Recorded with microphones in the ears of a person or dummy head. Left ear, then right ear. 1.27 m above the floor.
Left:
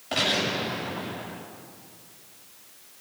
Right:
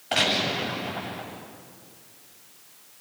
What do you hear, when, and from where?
0.1 s a gunshot: 20° right (ahead or behind), 7.5 m